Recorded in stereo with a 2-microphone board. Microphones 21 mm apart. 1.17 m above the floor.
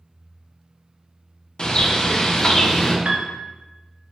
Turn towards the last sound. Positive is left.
turn(degrees=-75)  # may be behind; listen again after turning